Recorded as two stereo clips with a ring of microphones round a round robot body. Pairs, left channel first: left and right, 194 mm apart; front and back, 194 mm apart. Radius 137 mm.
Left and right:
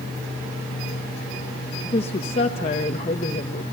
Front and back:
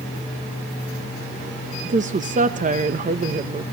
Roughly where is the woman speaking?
Behind left.